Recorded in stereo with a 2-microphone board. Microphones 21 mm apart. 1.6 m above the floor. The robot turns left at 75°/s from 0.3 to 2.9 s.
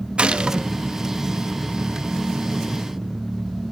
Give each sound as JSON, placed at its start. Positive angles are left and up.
{"t": 0.2, "sound": "a gunshot", "side_deg": -65, "distance_m": 0.6}